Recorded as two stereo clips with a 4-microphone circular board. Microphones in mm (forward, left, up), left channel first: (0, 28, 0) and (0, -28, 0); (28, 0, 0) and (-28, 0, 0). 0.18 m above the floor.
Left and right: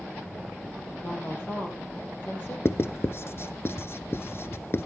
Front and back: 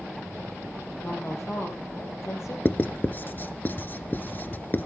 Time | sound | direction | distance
1.0 | a woman speaking | 40° left | 5 m
2.6 | writing | 50° left | 0.7 m